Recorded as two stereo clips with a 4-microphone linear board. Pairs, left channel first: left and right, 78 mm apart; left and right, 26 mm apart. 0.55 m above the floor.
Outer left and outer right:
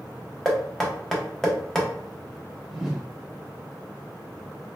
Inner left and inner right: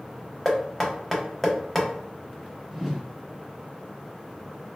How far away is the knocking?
About 0.6 m.